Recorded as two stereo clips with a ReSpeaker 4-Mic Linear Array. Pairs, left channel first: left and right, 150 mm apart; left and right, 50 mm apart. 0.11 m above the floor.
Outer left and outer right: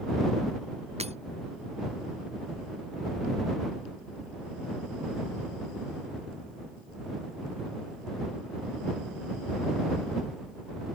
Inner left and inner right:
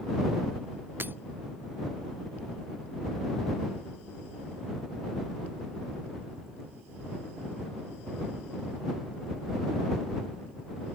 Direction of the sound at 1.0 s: 45° right (ahead or behind).